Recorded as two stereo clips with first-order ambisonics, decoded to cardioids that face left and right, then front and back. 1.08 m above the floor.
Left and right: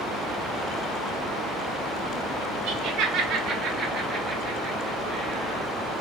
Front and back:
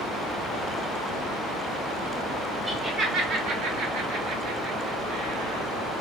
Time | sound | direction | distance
2.7 | laughter | 115° right | 1.2 m